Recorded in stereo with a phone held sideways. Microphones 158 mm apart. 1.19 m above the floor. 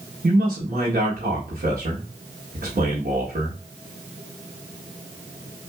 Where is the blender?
No blender in this recording.